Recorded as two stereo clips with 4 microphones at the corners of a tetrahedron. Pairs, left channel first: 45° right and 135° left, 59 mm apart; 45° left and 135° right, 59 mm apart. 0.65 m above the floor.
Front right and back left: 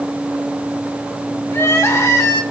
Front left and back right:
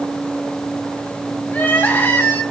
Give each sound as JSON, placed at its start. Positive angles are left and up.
{"t": 1.5, "sound": "crying", "azimuth_deg": -15, "distance_m": 2.0}